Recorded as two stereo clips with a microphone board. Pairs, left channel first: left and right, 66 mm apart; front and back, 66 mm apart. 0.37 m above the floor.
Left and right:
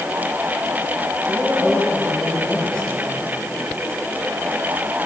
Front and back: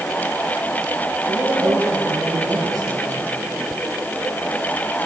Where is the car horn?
I don't hear a car horn.